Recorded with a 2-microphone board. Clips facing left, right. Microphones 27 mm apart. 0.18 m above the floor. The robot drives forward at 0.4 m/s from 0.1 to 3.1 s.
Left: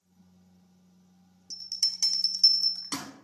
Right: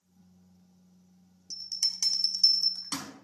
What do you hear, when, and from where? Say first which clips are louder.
1.5 s a bell: left 1 dB; 15° left (ahead or behind), 0.6 m; by 3.1 s 10° left (ahead or behind), 0.7 m